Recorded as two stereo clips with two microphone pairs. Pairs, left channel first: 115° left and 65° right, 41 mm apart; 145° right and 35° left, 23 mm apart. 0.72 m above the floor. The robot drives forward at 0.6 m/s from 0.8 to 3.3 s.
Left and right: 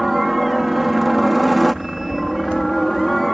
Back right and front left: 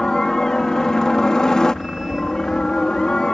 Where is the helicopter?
150° right; by 3.4 s 160° right.